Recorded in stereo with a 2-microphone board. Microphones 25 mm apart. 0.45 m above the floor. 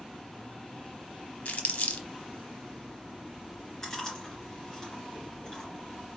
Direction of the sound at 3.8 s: 25° left (ahead or behind).